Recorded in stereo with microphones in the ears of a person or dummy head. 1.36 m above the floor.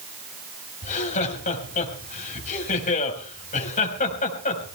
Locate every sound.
0.8 s laughter: 40° left (ahead or behind), 4.5 m